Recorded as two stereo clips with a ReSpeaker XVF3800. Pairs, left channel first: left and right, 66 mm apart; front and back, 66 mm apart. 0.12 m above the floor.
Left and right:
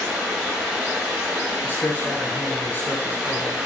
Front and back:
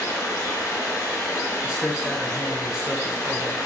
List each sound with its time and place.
0.0 s running water: 15° right, 3.5 m
1.6 s a man speaking: 110° left, 1.7 m